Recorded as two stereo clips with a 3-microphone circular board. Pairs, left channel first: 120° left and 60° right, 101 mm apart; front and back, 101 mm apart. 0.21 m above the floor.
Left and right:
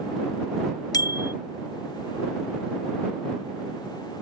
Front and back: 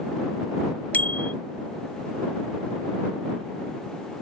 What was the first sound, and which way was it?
A bicycle bell, 70° left.